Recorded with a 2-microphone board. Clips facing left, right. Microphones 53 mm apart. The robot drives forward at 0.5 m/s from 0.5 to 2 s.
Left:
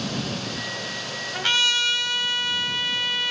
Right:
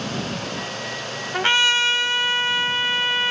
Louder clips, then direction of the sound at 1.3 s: Right 5 dB; 30° right (ahead or behind).